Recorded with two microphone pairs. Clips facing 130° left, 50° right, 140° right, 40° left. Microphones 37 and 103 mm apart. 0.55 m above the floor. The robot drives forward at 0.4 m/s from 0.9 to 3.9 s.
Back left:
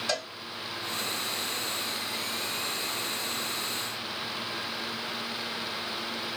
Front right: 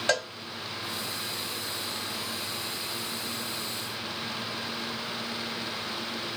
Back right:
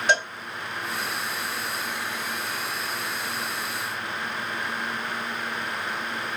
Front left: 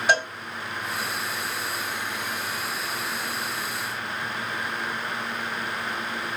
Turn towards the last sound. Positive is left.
turn(degrees=-105)